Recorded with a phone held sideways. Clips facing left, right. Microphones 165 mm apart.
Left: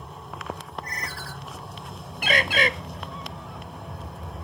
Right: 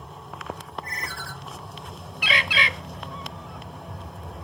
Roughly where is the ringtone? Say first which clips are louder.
Even; left.